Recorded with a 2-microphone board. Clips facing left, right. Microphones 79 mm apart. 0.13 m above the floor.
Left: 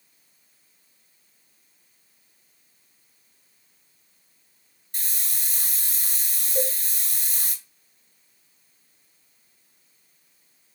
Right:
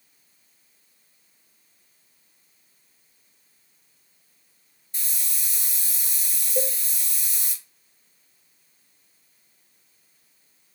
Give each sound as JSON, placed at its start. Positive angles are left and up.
{"t": 4.9, "sound": "a hiss", "side_deg": 55, "distance_m": 0.7}
{"t": 6.5, "sound": "a cowbell", "side_deg": 40, "distance_m": 2.5}